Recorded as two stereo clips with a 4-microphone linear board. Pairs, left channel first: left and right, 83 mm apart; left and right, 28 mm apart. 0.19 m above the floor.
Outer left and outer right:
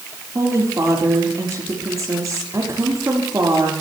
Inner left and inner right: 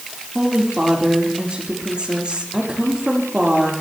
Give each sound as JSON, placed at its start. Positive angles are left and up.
{"t": 0.3, "sound": "a woman speaking", "side_deg": -40, "distance_m": 6.0}